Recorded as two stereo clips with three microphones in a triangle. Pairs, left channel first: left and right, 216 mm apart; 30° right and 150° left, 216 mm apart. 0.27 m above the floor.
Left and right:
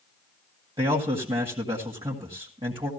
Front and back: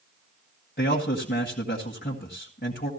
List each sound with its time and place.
0.8 s a man speaking: 35° right, 1.8 m